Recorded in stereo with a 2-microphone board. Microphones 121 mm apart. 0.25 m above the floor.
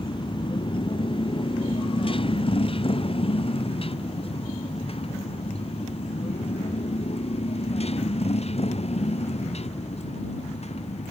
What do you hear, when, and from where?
0.0 s a motorcycle: 45° left (ahead or behind); by 11.1 s 60° left (ahead or behind)